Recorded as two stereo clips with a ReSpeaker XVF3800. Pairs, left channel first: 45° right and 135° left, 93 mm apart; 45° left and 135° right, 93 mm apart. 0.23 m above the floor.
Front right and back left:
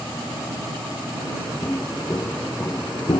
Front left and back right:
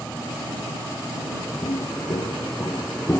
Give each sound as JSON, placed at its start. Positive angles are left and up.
{"t": 1.6, "sound": "footsteps", "azimuth_deg": 25}